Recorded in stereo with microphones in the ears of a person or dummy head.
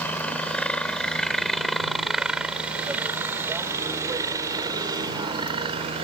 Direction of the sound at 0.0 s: 15° left (ahead or behind).